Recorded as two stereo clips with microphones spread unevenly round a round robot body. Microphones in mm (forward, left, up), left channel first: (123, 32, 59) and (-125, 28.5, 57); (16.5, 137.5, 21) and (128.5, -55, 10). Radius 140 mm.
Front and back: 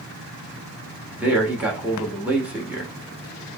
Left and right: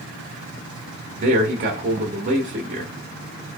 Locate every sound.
1.1 s a man speaking: 95° right, 0.9 m